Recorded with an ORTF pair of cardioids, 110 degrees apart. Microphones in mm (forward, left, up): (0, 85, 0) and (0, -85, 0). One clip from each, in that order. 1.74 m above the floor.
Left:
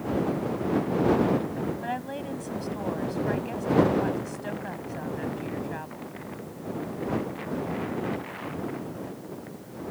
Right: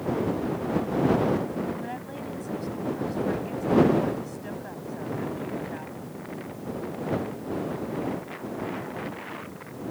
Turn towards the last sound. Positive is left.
turn(degrees=30)